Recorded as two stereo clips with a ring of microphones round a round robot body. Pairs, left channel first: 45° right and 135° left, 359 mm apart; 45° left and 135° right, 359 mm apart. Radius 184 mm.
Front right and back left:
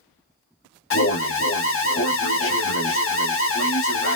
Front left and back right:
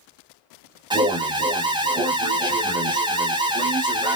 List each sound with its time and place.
0.9 s an alarm: 65° right, 0.7 m